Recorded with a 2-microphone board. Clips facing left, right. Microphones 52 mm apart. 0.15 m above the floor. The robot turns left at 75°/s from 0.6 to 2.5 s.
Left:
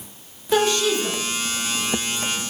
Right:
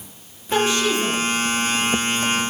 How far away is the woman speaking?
About 1.1 m.